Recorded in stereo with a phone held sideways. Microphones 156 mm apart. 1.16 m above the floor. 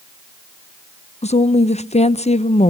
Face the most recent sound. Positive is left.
turn(degrees=45)  # may be behind; listen again after turning